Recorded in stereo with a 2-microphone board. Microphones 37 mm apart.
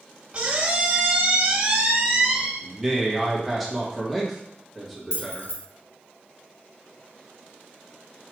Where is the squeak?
30° right (ahead or behind), 0.8 m.